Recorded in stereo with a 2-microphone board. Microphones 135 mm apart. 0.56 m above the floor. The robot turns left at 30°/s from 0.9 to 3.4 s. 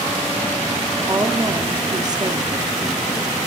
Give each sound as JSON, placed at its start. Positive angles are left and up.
{"t": 1.1, "sound": "a woman speaking", "azimuth_deg": -60, "distance_m": 0.7}